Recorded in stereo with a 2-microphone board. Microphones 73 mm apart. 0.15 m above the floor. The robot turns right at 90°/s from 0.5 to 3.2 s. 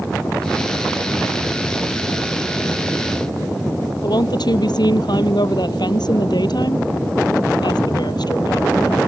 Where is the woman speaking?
70° left (ahead or behind).